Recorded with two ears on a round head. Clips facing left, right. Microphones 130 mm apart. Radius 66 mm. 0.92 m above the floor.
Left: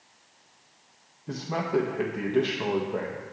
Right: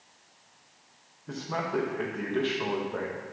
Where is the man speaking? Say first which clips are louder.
Left 3 dB; 15° left (ahead or behind), 0.6 m.